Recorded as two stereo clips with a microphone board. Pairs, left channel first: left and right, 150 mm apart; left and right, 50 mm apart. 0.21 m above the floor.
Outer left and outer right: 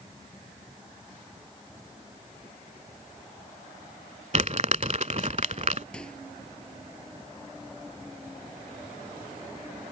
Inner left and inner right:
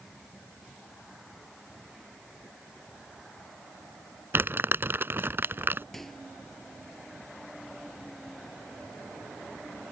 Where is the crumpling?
50° right (ahead or behind).